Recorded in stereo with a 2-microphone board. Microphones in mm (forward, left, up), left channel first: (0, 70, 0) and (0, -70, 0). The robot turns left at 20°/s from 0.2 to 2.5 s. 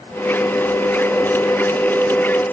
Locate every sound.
Only background noise.